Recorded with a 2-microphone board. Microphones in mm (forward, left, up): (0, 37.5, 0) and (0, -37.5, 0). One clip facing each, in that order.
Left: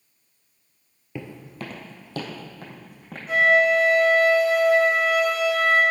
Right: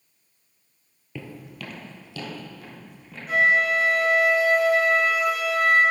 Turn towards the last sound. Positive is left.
turn(degrees=0)  # may be behind; listen again after turning